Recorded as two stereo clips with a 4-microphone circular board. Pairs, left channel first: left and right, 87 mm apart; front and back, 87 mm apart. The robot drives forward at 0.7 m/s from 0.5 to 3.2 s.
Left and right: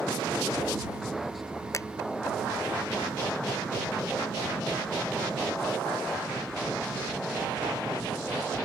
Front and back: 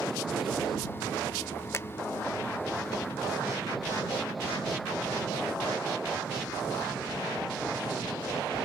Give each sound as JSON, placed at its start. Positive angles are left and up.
{"t": 1.7, "sound": "a finger snap", "azimuth_deg": 50}